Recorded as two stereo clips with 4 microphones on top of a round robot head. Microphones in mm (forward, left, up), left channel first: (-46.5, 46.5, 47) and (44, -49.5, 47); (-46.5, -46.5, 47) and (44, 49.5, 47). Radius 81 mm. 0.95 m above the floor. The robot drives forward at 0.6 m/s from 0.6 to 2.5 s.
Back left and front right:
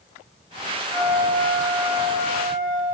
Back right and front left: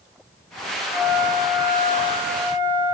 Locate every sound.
0.9 s a flute: 100° left, 7.5 m; by 3.0 s 110° left, 8 m